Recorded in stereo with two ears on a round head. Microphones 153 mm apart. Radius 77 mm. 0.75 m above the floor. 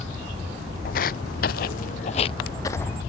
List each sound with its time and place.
0.8 s footsteps: 55° left (ahead or behind); by 3.0 s 10° left (ahead or behind)